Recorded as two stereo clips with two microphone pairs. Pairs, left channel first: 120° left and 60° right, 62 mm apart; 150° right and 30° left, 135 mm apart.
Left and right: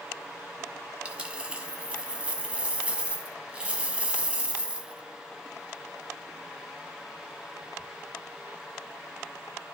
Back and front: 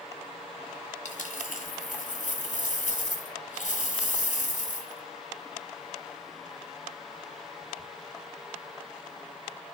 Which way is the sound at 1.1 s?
130° right.